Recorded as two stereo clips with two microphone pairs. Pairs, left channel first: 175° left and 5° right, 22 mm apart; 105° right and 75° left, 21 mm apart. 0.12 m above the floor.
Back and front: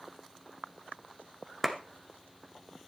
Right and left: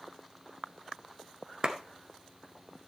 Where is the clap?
85° left, 1.3 m.